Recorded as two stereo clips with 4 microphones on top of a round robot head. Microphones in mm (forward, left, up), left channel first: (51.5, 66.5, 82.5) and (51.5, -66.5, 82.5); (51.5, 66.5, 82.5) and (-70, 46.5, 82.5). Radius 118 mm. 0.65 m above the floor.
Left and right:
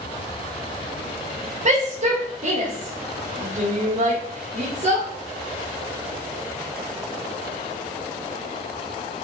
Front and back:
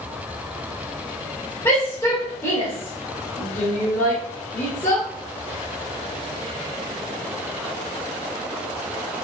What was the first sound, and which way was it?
A shout, 65° right.